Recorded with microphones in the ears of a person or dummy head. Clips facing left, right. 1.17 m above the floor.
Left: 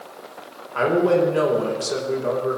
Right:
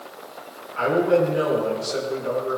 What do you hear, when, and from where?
0.8 s a man speaking: 75° left (ahead or behind), 5 m